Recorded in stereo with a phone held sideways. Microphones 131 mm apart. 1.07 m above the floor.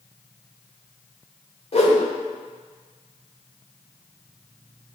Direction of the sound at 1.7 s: 55° left (ahead or behind).